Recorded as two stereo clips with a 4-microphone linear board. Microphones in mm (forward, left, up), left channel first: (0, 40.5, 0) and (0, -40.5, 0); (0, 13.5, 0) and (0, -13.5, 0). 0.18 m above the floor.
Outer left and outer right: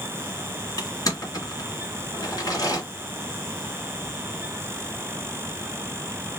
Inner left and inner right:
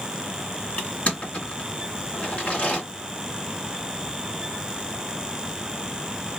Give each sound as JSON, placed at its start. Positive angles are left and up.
{"t": 0.8, "sound": "crushing", "side_deg": 50, "distance_m": 2.0}